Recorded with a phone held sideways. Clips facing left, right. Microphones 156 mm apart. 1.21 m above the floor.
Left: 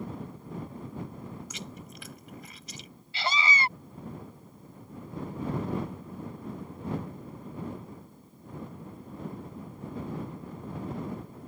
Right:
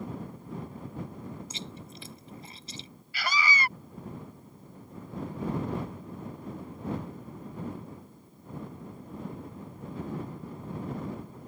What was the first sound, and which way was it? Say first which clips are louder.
Chewing: even; 30° right (ahead or behind).